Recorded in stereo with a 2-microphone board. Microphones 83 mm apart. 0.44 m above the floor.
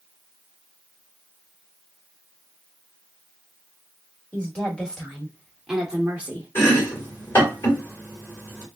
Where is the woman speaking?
15° left (ahead or behind), 1.5 m; by 6.5 s 20° right (ahead or behind), 1.1 m.